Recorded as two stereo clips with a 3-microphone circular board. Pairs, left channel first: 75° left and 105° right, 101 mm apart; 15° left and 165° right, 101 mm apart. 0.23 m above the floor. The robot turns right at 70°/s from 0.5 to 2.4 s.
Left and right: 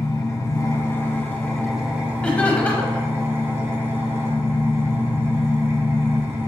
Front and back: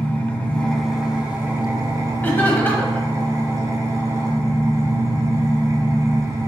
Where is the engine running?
80° left, 1.0 m; by 6.5 s 150° right, 1.0 m.